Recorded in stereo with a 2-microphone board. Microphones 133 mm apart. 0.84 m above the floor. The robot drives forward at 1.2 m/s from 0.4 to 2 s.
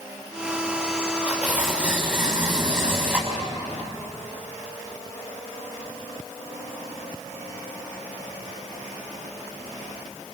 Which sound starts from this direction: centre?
Tearing paper, at 1.3 s.